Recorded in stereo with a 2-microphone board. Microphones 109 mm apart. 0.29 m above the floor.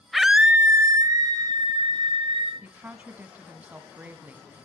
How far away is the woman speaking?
About 1.8 m.